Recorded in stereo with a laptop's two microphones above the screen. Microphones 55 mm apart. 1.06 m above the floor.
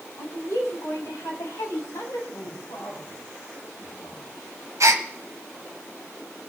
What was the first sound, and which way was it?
A woman speaking, 85° left.